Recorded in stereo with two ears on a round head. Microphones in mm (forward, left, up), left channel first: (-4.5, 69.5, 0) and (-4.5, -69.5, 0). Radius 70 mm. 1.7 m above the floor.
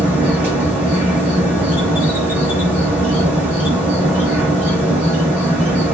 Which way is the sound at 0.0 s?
10° right (ahead or behind).